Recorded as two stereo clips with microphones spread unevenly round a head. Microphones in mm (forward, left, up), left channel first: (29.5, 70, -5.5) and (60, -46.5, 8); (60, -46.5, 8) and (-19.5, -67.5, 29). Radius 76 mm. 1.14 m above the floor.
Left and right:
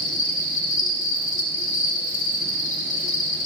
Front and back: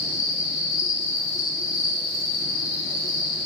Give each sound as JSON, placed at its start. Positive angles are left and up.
{"t": 0.0, "sound": "an insect", "azimuth_deg": 85, "distance_m": 1.3}